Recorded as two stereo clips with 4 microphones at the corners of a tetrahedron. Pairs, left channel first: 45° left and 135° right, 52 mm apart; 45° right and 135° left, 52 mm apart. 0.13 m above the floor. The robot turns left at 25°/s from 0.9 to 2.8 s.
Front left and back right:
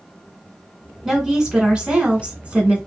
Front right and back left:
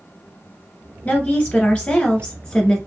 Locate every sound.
1.1 s a woman speaking: 65° right, 1.9 m; by 2.8 s 110° right, 1.9 m